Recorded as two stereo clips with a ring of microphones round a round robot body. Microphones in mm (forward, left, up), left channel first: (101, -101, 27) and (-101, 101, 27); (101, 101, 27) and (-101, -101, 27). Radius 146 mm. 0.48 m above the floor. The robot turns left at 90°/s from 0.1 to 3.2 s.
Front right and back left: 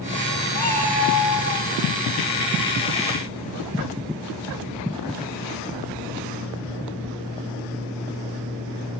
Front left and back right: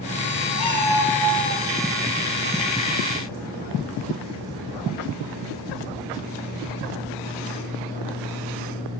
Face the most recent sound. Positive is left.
turn(degrees=115)